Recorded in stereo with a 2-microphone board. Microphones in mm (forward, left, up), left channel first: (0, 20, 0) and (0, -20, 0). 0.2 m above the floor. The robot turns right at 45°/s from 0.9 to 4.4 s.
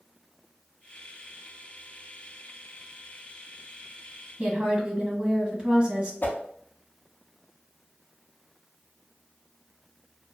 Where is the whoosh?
55° left (ahead or behind), 0.5 m.